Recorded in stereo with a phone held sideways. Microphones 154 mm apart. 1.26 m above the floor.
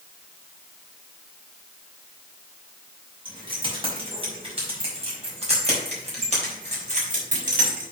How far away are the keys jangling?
About 4.5 m.